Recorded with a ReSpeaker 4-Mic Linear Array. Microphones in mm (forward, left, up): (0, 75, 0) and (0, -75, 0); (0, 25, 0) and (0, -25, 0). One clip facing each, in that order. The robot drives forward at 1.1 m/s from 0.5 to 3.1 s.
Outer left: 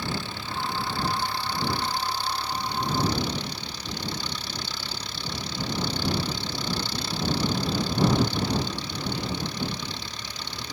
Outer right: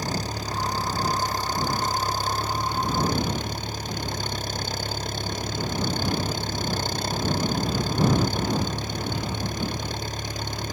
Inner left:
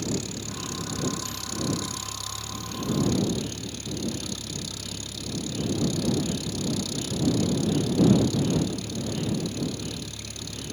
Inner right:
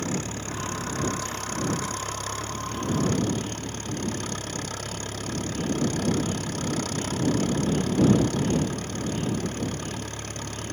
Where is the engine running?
40° right (ahead or behind); by 10.7 s 50° right (ahead or behind).